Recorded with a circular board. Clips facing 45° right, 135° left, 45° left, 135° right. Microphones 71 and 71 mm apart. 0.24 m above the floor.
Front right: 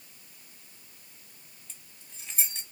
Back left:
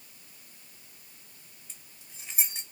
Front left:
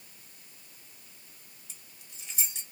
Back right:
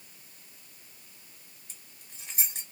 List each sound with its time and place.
1.7 s keys jangling: 150° right, 1.0 m